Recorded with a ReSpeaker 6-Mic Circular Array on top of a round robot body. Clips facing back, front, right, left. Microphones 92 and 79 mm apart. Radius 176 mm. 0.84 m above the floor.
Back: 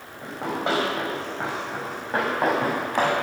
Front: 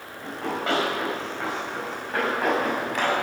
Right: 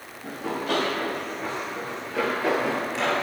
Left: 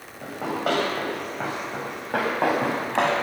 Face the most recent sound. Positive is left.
turn(degrees=120)